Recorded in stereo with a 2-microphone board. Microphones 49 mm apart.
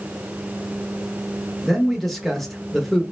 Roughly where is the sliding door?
No sliding door in this recording.